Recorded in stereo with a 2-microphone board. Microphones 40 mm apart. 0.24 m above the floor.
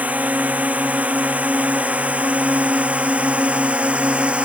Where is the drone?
40° right (ahead or behind); by 4.5 s 30° right (ahead or behind).